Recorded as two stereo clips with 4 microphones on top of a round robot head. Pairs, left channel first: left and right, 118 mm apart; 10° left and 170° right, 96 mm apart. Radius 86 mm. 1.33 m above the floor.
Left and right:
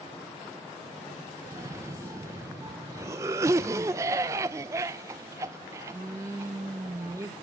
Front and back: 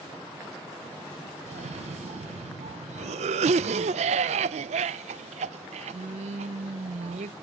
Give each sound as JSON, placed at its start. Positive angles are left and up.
{"t": 1.5, "sound": "a cough", "azimuth_deg": -160, "distance_m": 0.6}